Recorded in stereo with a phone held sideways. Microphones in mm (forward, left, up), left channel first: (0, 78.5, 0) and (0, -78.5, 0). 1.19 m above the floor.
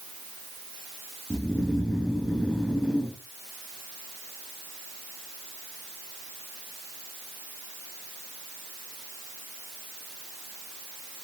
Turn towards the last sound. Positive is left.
turn(degrees=5)  # may be behind; listen again after turning